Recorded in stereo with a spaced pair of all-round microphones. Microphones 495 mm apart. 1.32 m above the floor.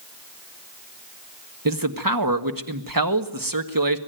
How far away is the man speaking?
About 1.7 m.